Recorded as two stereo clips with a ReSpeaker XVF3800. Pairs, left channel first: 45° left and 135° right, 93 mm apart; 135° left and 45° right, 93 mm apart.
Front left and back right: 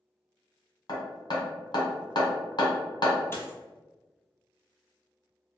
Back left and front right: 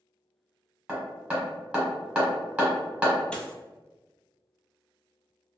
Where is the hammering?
30° left, 1.3 m.